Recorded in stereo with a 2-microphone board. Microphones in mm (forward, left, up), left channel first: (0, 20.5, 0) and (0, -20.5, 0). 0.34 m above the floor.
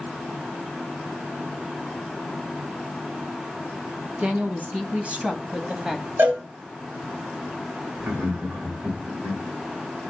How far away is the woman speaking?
About 2.5 m.